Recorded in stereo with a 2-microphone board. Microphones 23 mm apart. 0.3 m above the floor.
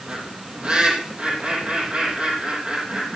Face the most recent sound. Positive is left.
turn(degrees=-50)  # may be behind; listen again after turning